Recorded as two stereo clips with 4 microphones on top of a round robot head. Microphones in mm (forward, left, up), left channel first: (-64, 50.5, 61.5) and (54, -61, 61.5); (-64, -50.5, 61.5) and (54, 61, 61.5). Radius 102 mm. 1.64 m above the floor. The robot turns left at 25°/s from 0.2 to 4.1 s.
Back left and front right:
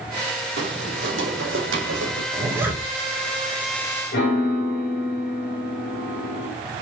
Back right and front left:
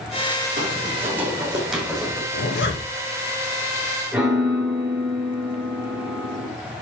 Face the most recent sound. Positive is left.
turn(degrees=130)